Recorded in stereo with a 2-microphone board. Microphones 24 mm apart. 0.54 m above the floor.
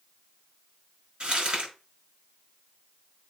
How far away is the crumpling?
About 6 m.